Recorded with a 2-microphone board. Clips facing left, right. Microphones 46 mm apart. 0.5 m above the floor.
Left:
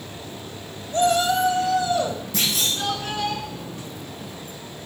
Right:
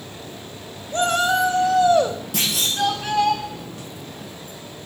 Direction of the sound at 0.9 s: 45° right (ahead or behind).